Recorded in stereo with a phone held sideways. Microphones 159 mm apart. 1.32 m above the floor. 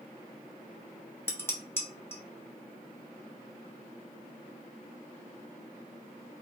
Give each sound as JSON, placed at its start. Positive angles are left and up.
{"t": 1.3, "sound": "dishes clattering", "side_deg": 15, "distance_m": 0.6}